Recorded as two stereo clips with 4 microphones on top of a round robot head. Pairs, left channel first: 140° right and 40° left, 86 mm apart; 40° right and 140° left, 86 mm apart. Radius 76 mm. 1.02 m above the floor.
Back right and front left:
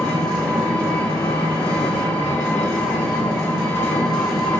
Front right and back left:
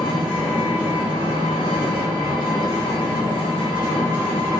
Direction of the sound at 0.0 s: 170° left.